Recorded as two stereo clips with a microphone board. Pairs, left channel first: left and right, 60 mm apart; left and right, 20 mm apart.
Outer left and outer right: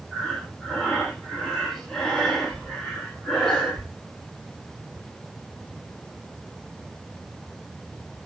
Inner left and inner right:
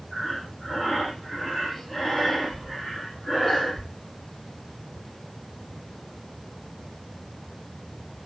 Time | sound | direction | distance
0.1 | breathing | 5° left (ahead or behind) | 2.5 m